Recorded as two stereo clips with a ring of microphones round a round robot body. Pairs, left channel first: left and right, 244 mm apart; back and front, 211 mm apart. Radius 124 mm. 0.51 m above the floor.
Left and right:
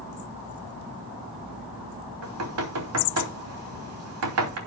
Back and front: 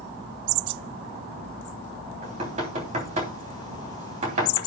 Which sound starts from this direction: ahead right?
Knocking, at 2.2 s.